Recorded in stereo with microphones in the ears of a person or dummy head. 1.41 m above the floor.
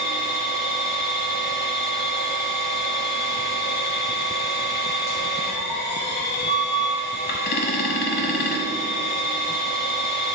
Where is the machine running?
45° left (ahead or behind), 1.0 m.